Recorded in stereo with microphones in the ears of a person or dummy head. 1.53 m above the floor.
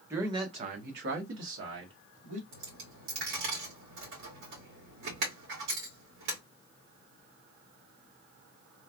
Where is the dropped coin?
60° right (ahead or behind), 1.9 m.